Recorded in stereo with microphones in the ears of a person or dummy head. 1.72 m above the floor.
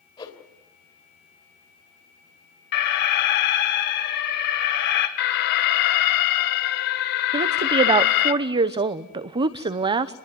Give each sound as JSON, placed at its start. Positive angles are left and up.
{"t": 0.2, "sound": "a whoosh", "side_deg": 20, "distance_m": 3.0}
{"t": 2.7, "sound": "an alarm", "side_deg": 50, "distance_m": 2.5}
{"t": 5.2, "sound": "an alarm", "side_deg": 55, "distance_m": 1.8}
{"t": 7.3, "sound": "a woman speaking", "side_deg": -35, "distance_m": 1.0}